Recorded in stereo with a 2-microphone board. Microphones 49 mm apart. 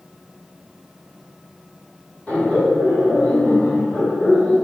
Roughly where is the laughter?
Left.